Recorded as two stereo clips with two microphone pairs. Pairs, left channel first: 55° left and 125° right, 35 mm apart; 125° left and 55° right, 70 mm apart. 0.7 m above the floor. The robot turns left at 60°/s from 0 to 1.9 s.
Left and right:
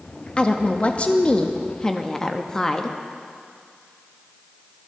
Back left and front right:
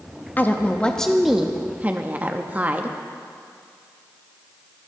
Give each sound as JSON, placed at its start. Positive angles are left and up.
{"t": 0.4, "sound": "a woman speaking", "azimuth_deg": 85, "distance_m": 0.6}